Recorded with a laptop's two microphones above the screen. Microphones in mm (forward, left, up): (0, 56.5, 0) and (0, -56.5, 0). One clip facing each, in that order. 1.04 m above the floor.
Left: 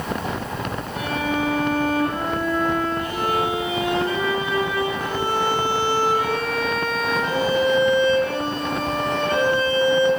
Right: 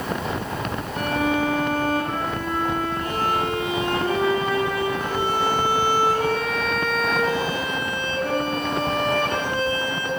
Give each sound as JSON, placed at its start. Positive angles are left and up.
{"t": 0.9, "sound": "a violin", "side_deg": -55, "distance_m": 8.0}